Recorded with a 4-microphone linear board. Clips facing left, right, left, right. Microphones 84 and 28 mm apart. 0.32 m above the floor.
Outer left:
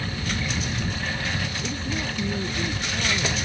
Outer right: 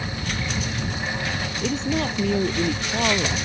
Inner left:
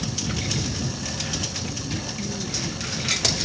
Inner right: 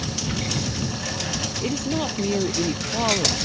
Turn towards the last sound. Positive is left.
turn(degrees=-85)